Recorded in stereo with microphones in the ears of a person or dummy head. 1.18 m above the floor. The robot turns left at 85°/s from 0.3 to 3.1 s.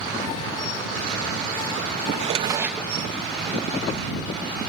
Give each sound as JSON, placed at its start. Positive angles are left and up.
{"t": 2.1, "sound": "a drawer", "azimuth_deg": -125}